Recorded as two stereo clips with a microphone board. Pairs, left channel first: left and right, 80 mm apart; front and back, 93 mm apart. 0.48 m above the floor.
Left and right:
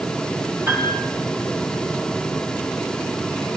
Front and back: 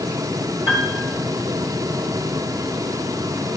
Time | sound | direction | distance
0.7 | a piano | 30° right | 3.5 m